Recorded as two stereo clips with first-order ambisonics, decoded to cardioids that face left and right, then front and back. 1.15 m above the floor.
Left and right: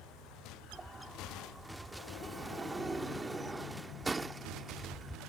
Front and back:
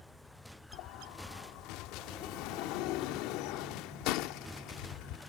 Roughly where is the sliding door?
Ahead.